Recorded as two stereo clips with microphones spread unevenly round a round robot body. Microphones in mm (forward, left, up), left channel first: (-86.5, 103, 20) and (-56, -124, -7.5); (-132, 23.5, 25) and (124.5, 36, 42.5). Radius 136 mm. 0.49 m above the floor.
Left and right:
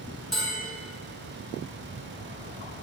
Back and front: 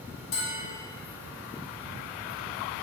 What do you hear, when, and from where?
0.3 s a bell: 170° right, 4 m